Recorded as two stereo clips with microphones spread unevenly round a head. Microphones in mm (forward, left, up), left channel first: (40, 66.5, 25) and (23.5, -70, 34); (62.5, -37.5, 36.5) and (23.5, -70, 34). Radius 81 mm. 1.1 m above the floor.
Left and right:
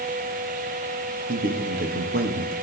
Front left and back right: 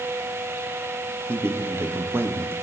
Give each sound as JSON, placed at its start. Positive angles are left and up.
{"t": 1.3, "sound": "a man speaking", "azimuth_deg": -105, "distance_m": 2.0}